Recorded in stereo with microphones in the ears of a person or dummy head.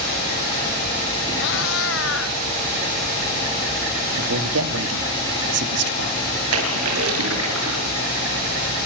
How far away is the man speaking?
About 2.5 m.